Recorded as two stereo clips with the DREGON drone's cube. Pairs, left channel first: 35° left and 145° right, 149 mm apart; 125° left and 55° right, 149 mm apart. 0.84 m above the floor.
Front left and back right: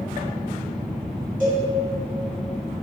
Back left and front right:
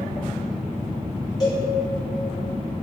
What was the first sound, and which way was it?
A cowbell, 170° right.